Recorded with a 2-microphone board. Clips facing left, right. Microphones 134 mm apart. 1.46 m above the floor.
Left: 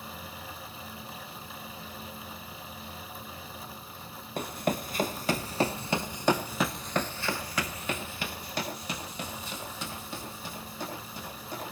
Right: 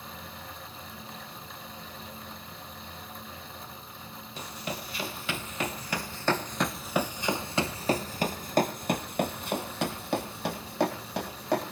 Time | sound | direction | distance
4.4 | running footsteps | 50° left (ahead or behind) | 2.5 m